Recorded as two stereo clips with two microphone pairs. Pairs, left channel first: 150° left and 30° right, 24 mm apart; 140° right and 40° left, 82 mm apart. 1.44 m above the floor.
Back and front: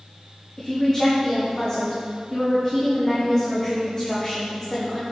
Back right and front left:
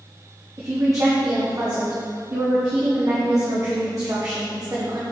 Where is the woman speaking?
85° left, 1.2 m.